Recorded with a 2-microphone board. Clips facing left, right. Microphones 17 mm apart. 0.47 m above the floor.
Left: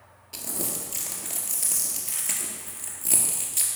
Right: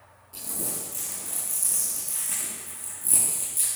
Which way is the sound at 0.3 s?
65° left (ahead or behind).